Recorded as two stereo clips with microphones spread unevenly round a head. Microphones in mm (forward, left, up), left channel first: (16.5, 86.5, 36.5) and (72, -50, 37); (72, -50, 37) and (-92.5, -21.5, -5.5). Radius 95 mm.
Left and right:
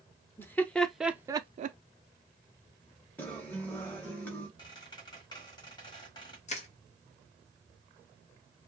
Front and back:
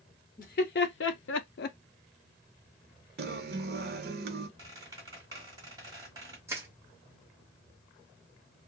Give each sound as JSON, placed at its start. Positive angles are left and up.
{"t": 0.4, "sound": "laughter", "azimuth_deg": 35, "distance_m": 1.1}
{"t": 3.2, "sound": "a guitar", "azimuth_deg": -165, "distance_m": 0.7}
{"t": 4.6, "sound": "a squeak", "azimuth_deg": 90, "distance_m": 1.3}
{"t": 6.5, "sound": "crushing", "azimuth_deg": 85, "distance_m": 0.7}